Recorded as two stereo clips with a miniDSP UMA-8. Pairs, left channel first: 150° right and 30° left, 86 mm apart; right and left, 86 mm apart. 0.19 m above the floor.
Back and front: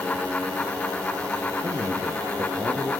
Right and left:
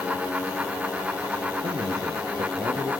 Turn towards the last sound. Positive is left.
turn(degrees=80)